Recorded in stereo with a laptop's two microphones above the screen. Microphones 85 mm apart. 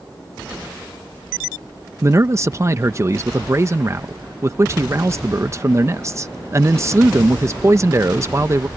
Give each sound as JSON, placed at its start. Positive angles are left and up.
{"t": 2.0, "sound": "a man speaking", "side_deg": -35}